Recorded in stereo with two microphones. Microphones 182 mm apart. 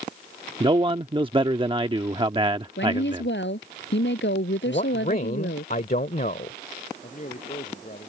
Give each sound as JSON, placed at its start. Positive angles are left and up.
{"t": 0.6, "sound": "a man speaking", "side_deg": -25}
{"t": 2.8, "sound": "a woman speaking", "side_deg": 85}
{"t": 4.7, "sound": "a man speaking", "side_deg": 50}
{"t": 7.0, "sound": "a man speaking", "side_deg": 45}